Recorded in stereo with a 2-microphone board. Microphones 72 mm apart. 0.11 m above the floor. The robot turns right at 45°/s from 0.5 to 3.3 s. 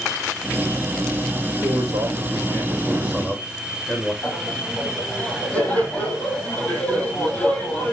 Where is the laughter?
15° left (ahead or behind), 4 m.